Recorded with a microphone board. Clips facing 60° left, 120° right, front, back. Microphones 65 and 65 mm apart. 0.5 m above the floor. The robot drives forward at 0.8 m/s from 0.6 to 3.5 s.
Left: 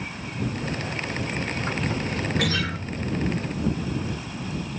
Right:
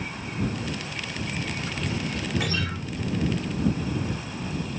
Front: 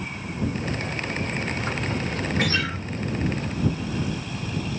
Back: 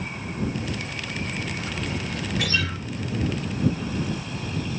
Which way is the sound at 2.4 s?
50° left.